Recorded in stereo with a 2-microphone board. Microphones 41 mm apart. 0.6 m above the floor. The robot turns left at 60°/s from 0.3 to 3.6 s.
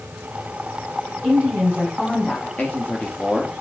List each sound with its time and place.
1.2 s a woman speaking: 130° right, 4.5 m; by 2.5 s 155° left, 4.5 m
2.6 s a man speaking: 65° left, 1.3 m; by 3.5 s 10° left, 1.3 m